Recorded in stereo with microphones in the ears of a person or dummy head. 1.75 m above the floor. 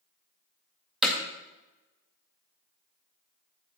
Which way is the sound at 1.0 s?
5° right (ahead or behind).